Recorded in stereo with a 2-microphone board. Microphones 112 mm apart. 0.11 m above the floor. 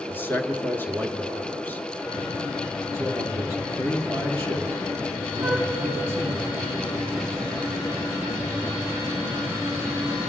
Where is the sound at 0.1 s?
20° left (ahead or behind), 1.4 m.